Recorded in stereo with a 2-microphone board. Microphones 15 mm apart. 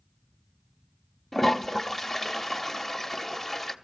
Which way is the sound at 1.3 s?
15° left (ahead or behind).